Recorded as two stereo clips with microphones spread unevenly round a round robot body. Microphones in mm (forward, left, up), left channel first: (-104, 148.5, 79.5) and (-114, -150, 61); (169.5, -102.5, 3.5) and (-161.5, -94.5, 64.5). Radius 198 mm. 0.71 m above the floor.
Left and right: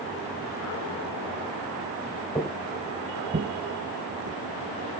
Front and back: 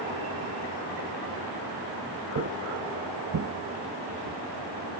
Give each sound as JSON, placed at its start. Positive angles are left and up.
{"t": 2.4, "sound": "footsteps", "azimuth_deg": 170, "distance_m": 0.9}